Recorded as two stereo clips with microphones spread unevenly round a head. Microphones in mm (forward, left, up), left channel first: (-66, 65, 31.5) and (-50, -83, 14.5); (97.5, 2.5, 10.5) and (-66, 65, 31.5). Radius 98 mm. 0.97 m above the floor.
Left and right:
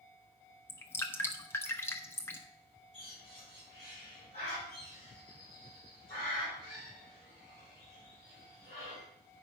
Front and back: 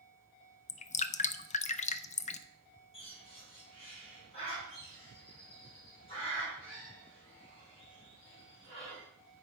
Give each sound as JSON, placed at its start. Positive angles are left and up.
{"t": 0.7, "sound": "dripping", "azimuth_deg": 15, "distance_m": 0.5}
{"t": 2.9, "sound": "a bird", "azimuth_deg": 35, "distance_m": 5.5}